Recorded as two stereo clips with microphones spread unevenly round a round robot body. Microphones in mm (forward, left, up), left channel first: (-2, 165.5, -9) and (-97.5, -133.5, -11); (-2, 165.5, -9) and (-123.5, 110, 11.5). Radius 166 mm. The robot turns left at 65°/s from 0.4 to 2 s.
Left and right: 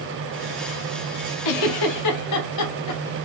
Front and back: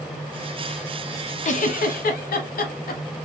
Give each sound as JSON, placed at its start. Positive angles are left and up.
{"t": 1.4, "sound": "a giggle", "azimuth_deg": 60, "distance_m": 0.7}